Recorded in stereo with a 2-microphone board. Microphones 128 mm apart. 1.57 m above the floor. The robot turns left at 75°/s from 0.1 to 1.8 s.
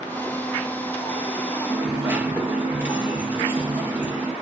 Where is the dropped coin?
15° right (ahead or behind), 0.8 m.